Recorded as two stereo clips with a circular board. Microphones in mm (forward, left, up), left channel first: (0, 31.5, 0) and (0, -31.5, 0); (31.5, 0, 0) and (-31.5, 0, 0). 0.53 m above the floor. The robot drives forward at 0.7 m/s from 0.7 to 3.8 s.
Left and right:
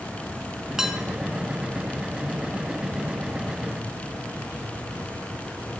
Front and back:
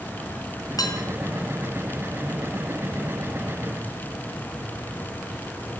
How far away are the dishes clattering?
About 4 m.